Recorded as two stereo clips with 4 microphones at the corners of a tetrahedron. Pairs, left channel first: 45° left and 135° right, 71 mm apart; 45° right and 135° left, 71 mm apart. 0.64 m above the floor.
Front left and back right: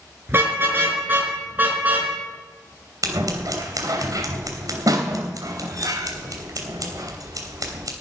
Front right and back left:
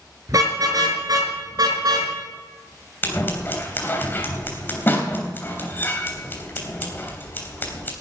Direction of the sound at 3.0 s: 105° right.